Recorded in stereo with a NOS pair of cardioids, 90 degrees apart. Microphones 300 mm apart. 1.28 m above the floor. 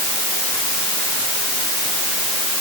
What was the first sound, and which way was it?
Only background noise.